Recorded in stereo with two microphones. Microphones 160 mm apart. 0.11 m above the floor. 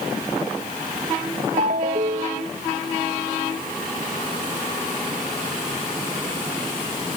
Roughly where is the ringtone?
Right.